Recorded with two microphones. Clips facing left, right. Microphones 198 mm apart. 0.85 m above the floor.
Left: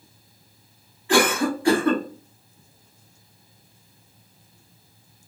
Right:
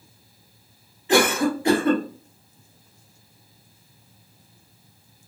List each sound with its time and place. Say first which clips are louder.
1.1 s a cough: right 1 dB; 20° right (ahead or behind), 1.3 m